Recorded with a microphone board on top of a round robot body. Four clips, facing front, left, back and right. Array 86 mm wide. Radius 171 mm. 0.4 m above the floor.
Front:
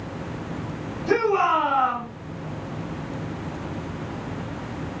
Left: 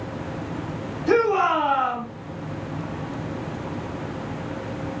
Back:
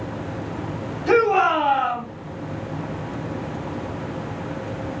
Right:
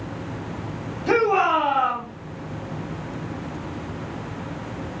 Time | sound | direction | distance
1.1 | a shout | 140° right | 2.5 m